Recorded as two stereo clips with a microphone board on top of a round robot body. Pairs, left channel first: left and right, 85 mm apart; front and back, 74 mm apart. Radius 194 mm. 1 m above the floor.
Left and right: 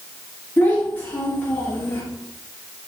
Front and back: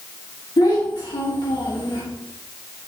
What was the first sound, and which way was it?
A child speaking, 20° left.